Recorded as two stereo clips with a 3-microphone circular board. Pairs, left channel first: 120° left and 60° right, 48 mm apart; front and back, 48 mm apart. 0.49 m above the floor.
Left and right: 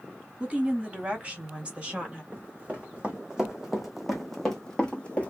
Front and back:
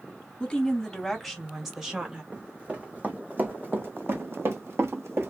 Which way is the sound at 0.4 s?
50° right.